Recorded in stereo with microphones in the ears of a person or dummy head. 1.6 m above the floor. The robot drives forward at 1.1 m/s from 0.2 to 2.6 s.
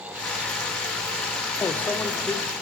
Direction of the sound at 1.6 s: 15° left (ahead or behind).